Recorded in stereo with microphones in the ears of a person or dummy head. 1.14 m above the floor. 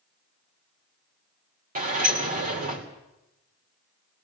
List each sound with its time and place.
1.8 s a sliding door: 40° right (ahead or behind), 2.5 m